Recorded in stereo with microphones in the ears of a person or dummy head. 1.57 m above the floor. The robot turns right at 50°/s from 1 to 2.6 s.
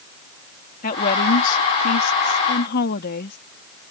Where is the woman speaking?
50° left; by 3.4 s 130° left.